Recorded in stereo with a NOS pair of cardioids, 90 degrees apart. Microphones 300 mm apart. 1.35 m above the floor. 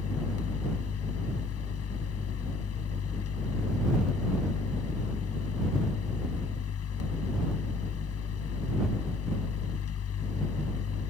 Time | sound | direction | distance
0.0 | a fan | 55° left | ?